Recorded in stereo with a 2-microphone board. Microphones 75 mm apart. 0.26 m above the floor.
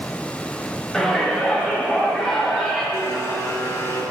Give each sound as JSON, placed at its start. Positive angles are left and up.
{"t": 0.9, "sound": "a shout", "side_deg": 10, "distance_m": 1.6}
{"t": 2.9, "sound": "a blender", "side_deg": 45, "distance_m": 2.5}